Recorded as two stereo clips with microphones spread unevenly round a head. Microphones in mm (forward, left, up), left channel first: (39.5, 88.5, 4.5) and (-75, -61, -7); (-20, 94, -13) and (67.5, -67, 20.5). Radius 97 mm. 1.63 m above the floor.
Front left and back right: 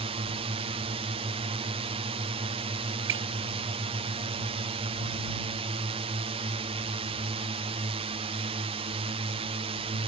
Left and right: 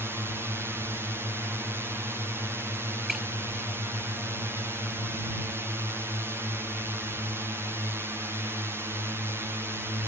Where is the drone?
150° right.